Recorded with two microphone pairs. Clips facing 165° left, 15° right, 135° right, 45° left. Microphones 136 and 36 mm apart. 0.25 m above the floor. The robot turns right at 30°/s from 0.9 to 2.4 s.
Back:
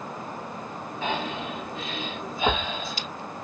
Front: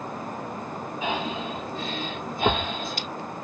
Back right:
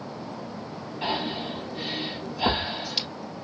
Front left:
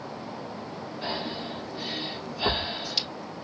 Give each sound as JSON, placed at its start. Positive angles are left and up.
{"t": 1.0, "sound": "breathing", "azimuth_deg": -90, "distance_m": 3.0}